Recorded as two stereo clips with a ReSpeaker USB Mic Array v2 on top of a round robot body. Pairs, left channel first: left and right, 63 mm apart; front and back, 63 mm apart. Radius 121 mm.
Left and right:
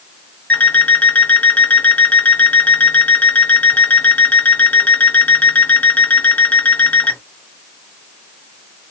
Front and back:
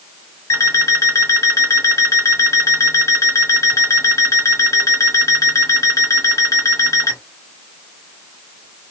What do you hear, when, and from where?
0.5 s an alarm clock: 25° left, 1.5 m